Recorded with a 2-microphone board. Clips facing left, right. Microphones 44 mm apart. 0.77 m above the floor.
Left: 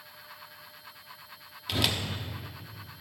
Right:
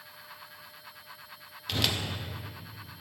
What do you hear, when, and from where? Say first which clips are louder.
1.7 s a whoosh: left 1 dB; 5° left (ahead or behind), 0.6 m